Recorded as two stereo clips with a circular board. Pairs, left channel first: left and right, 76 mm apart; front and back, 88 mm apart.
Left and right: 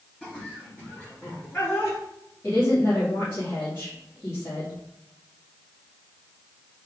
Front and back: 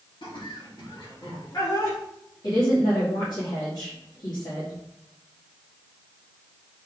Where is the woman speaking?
35° left, 2.5 m.